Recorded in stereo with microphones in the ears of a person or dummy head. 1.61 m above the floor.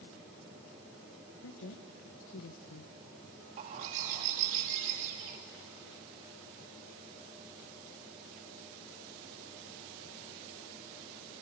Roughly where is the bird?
Right.